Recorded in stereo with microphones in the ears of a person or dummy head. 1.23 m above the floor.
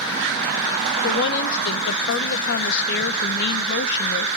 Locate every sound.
1.0 s a woman speaking: 60° left (ahead or behind), 0.7 m